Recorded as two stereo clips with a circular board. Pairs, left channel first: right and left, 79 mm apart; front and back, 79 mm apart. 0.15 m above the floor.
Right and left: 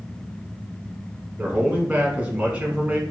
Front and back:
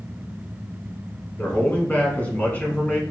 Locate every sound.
1.4 s a man speaking: 45° left, 1.1 m